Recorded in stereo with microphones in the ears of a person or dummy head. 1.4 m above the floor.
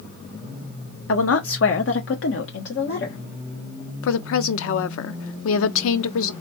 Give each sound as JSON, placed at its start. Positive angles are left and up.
{"t": 1.1, "sound": "a woman speaking", "side_deg": 70, "distance_m": 0.8}
{"t": 4.0, "sound": "a woman speaking", "side_deg": 75, "distance_m": 0.6}